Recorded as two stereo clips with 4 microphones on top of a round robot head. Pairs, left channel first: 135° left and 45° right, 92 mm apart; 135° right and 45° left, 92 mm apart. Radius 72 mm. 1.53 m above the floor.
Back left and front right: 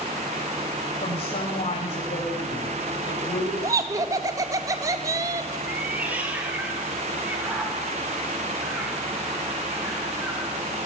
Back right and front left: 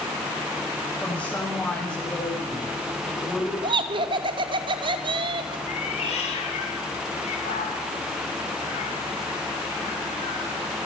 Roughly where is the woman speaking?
Behind left.